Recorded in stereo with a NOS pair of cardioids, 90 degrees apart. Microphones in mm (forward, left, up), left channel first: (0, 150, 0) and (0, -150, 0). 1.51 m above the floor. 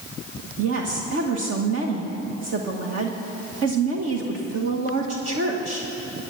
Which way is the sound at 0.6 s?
55° right.